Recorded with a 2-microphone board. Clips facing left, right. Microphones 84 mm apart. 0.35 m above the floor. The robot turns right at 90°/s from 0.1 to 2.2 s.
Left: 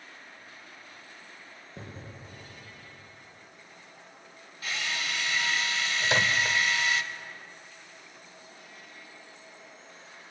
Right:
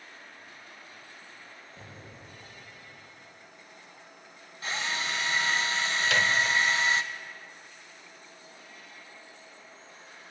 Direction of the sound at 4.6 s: 30° right (ahead or behind).